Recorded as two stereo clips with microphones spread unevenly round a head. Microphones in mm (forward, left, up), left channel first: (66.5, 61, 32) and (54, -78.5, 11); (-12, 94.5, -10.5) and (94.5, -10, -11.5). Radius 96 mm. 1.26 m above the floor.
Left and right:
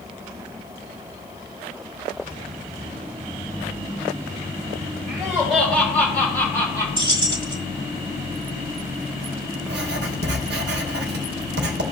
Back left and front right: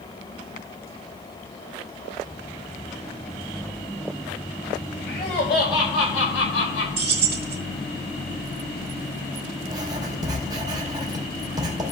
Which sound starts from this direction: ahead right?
Keys jangling, at 7.0 s.